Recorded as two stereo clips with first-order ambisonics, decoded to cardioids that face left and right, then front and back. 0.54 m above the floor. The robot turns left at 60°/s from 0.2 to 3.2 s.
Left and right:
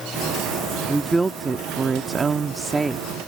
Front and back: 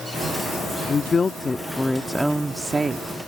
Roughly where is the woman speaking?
Ahead.